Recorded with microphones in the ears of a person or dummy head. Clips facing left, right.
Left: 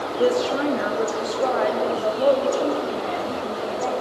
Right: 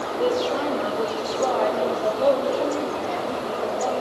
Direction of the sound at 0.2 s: 30° left (ahead or behind).